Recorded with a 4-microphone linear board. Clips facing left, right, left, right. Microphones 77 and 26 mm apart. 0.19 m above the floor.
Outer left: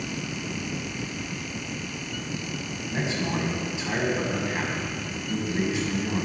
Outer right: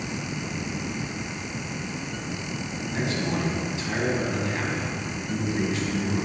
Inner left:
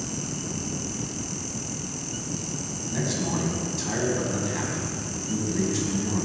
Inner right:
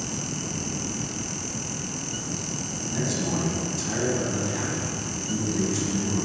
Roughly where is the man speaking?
Centre.